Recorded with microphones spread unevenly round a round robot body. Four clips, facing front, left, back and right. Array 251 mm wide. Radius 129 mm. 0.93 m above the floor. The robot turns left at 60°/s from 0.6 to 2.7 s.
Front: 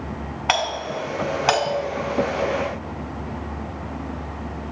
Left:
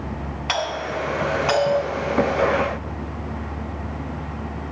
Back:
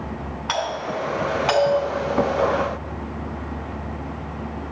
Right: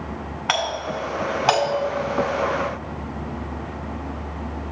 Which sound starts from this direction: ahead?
A doorbell, at 0.5 s.